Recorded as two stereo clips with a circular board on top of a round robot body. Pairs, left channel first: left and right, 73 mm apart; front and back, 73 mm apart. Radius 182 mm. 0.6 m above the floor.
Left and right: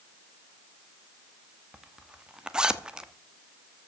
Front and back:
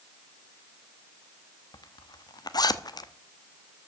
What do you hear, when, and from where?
1.7 s a zipper: 10° right, 1.2 m